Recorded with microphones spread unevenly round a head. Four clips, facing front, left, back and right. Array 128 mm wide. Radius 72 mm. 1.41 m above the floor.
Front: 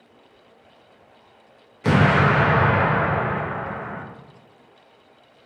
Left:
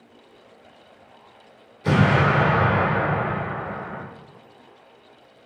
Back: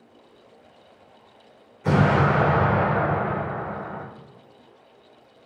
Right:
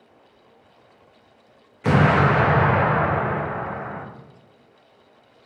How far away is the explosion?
About 0.6 m.